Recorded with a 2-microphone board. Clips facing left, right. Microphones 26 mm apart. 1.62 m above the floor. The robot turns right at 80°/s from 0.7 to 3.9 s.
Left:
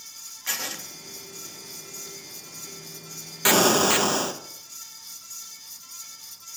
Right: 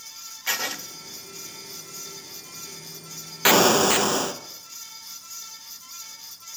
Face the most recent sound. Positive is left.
turn(degrees=0)